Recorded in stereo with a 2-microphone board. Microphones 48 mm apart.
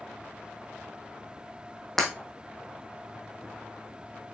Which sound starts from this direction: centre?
Breaking glass, at 2.0 s.